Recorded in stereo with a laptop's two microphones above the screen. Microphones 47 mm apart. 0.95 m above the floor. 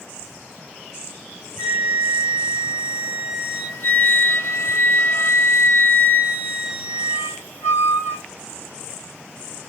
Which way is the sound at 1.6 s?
60° left (ahead or behind).